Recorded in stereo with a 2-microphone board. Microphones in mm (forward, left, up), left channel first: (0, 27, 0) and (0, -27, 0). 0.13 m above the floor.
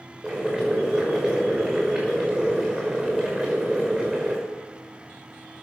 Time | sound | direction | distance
0.2 | boiling | 20° right (ahead or behind) | 6 m